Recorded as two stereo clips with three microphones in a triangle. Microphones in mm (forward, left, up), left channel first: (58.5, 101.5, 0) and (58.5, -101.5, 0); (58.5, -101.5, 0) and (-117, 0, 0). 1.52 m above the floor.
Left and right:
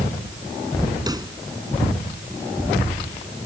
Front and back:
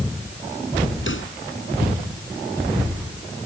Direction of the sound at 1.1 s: 20° right.